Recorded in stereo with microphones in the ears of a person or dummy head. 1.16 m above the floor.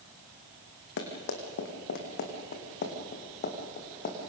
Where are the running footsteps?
65° left (ahead or behind), 3.5 m; by 4.2 s 45° left (ahead or behind), 4.5 m.